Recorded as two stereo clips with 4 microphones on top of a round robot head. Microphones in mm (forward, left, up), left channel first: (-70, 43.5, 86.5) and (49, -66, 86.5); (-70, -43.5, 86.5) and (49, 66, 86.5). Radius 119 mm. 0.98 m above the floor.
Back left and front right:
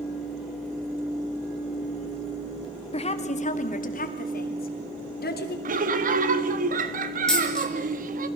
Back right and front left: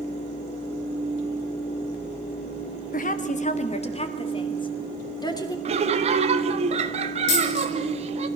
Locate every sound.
2.9 s a woman speaking: 170° right, 2 m; by 5.5 s 155° left, 3.5 m
5.7 s laughter: 10° right, 1.9 m
7.3 s a dropped coin: 135° right, 5.5 m